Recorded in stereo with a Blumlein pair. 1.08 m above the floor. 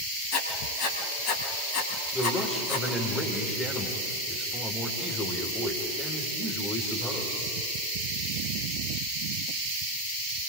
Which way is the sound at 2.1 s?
15° left.